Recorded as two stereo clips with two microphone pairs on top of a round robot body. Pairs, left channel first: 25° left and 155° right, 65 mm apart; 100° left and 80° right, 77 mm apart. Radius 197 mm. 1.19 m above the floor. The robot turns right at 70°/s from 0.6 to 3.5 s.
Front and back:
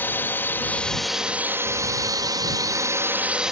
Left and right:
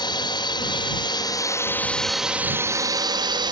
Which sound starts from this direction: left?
A drone, at 0.0 s.